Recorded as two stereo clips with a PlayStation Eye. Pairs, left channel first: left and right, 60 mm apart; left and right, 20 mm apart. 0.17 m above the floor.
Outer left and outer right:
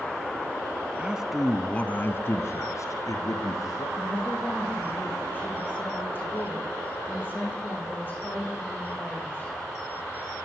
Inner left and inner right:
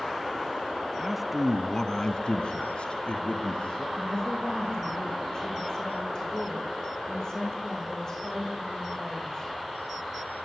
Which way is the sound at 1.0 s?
20° right (ahead or behind).